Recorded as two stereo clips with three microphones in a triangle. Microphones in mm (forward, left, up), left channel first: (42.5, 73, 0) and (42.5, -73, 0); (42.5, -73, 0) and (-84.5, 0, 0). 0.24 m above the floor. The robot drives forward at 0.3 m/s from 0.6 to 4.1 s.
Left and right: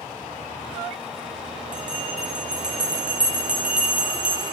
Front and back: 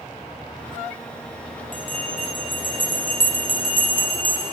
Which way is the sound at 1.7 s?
5° right.